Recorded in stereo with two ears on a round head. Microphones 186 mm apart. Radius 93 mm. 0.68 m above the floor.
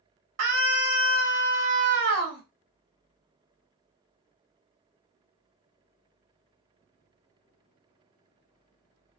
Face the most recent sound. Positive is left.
turn(degrees=-55)  # may be behind; listen again after turning